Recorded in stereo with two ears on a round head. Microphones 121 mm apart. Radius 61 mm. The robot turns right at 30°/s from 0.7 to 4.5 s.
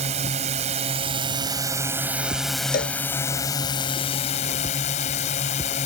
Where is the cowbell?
75° left (ahead or behind); by 3.0 s 70° left (ahead or behind).